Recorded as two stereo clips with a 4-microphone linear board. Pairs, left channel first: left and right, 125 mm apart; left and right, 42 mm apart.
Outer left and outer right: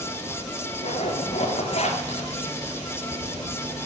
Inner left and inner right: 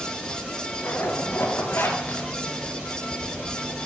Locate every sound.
0.8 s a zipper: 60° left (ahead or behind), 3 m